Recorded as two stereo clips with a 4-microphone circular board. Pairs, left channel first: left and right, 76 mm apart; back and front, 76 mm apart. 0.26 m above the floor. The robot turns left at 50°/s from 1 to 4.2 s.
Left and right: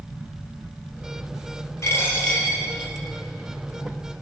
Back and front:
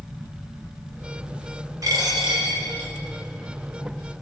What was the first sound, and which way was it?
A dropped coin, 40° left.